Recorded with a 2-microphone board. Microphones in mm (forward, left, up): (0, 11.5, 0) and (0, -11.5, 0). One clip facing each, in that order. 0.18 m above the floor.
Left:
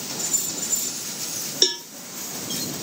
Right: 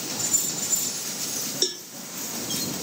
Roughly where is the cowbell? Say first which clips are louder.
Left 7 dB; left.